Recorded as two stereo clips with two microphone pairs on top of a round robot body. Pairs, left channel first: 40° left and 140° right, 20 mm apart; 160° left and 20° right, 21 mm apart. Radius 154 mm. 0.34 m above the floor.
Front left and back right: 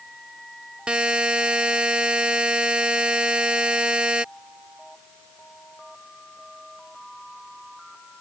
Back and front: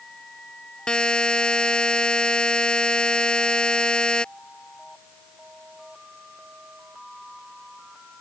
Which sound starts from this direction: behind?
A buzzer, at 0.9 s.